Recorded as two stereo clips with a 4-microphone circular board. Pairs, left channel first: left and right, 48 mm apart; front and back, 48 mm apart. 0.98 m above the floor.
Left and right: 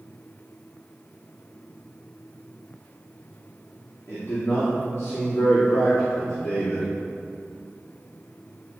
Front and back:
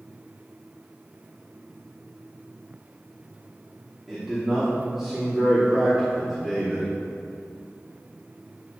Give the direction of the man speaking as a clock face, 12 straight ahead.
9 o'clock.